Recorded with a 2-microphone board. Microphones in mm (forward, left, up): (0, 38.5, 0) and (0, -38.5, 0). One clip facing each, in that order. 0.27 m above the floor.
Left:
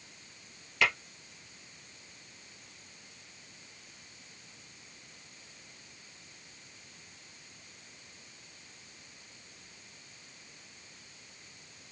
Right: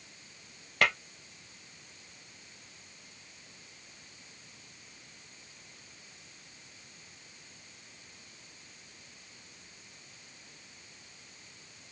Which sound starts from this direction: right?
Tapping, at 0.8 s.